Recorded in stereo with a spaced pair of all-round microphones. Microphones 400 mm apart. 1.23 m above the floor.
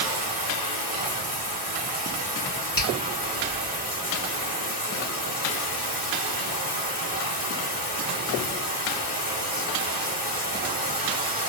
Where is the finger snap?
55° left (ahead or behind), 2 m.